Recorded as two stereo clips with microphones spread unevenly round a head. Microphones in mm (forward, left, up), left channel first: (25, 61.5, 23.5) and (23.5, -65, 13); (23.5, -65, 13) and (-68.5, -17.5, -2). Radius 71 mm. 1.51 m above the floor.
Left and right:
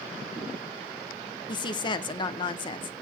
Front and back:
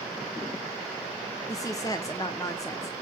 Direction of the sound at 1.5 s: 35° left.